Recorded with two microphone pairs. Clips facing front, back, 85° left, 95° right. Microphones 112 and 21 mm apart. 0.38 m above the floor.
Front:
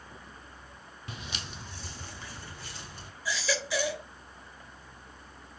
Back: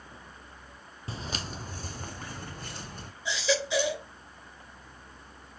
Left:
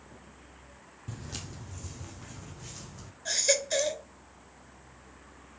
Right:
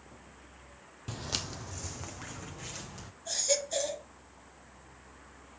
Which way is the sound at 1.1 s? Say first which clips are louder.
Back 5 dB, right 6 dB; 130° right.